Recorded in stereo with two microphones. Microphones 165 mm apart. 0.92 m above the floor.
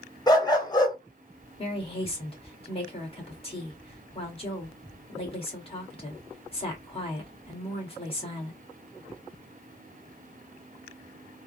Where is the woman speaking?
35° left (ahead or behind), 1.6 m.